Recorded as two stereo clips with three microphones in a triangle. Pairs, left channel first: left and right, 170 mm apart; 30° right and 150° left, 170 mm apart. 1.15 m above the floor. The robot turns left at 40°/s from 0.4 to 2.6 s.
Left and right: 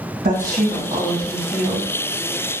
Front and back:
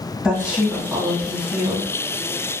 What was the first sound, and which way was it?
A woman speaking, 120° right.